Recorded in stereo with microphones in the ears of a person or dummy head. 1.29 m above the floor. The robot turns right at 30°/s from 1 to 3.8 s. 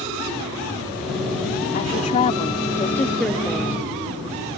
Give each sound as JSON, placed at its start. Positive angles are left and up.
{"t": 1.7, "sound": "a woman speaking", "azimuth_deg": 135}